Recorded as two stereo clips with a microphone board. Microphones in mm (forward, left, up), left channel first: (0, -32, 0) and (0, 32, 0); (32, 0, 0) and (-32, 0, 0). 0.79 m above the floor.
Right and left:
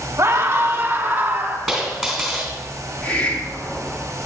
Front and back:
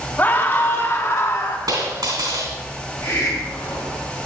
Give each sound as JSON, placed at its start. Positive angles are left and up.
{"t": 0.2, "sound": "a scream", "azimuth_deg": 55, "distance_m": 1.5}
{"t": 1.7, "sound": "a dropped coin", "azimuth_deg": 180, "distance_m": 3.0}
{"t": 3.0, "sound": "a hiss", "azimuth_deg": -30, "distance_m": 2.5}